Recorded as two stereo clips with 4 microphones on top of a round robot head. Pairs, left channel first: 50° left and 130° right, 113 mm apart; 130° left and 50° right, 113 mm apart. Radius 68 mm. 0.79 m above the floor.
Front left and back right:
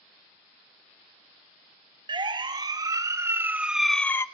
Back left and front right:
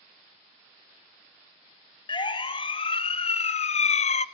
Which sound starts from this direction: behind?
A siren, at 2.1 s.